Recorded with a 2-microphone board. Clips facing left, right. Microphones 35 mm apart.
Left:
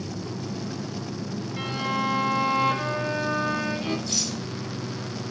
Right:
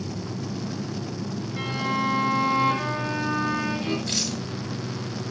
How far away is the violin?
About 3.5 m.